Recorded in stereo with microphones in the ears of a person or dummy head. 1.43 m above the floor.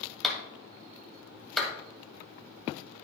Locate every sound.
0.2 s a clap: 10° left (ahead or behind), 2.0 m